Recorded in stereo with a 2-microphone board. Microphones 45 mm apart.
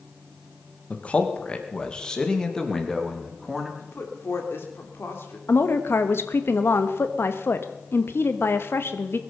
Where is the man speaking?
30° left (ahead or behind), 1.9 m; by 3.7 s 5° left (ahead or behind), 3 m.